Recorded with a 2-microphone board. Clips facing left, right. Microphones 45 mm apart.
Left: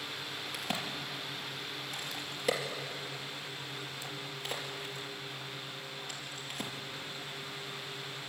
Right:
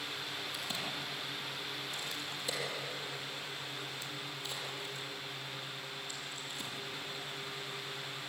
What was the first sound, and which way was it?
A crack, 60° left (ahead or behind).